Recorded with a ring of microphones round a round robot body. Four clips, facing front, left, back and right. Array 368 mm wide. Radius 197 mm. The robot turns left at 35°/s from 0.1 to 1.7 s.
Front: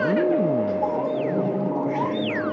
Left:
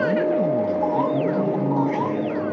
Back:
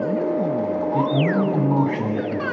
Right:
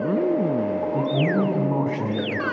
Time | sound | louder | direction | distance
0.9 | a man speaking | left 1 dB, back 4 dB | 145° right | 7 m